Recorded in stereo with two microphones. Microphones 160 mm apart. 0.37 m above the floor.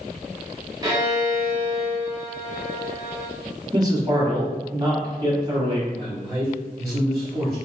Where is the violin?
25° right (ahead or behind), 1.3 m.